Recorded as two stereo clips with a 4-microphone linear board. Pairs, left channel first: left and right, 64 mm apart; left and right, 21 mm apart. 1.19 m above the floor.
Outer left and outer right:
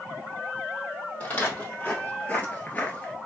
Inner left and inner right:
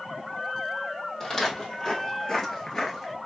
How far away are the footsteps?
About 2 m.